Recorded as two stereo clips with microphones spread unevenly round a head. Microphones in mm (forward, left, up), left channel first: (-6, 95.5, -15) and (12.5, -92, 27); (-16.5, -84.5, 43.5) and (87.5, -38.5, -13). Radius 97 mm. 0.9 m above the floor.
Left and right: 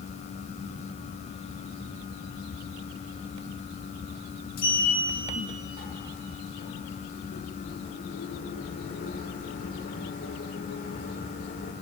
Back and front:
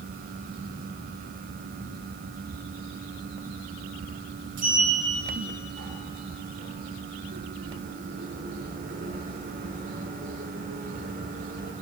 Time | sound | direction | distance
4.6 | a sliding door | 50° left | 1.4 m